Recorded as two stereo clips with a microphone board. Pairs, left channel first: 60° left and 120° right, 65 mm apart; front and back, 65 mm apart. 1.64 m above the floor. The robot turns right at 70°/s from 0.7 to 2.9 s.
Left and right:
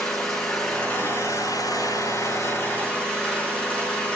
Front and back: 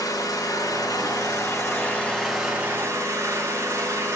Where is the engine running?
20° right, 5.5 m; by 4.2 s 135° left, 5.5 m.